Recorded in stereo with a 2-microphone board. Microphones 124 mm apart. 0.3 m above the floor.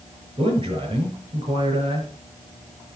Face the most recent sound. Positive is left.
turn(degrees=-40)  # may be behind; listen again after turning